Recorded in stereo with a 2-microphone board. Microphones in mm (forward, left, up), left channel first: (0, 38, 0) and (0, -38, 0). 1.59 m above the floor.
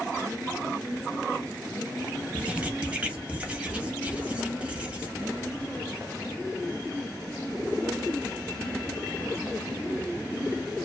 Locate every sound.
2.3 s writing: 20° right (ahead or behind), 0.8 m